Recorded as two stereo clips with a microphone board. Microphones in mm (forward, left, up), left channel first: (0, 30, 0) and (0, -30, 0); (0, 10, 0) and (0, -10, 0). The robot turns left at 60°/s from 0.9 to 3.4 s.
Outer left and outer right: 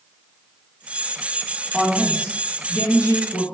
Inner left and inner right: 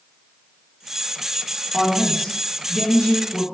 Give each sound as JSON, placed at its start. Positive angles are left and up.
{"t": 1.7, "sound": "a woman speaking", "azimuth_deg": -175, "distance_m": 2.0}